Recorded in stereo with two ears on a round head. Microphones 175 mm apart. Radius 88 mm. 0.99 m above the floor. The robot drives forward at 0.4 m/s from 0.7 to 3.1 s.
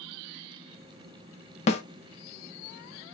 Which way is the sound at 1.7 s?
35° left (ahead or behind).